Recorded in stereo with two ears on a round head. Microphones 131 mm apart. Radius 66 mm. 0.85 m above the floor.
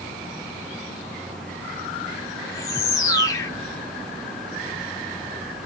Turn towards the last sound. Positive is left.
turn(degrees=25)  # may be behind; listen again after turning